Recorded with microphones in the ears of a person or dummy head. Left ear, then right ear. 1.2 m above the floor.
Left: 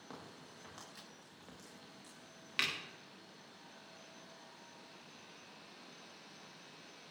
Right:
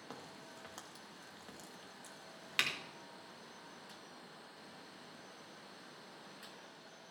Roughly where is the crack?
Right.